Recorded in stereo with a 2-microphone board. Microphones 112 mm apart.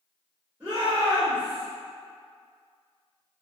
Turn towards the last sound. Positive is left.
turn(degrees=-35)  # may be behind; listen again after turning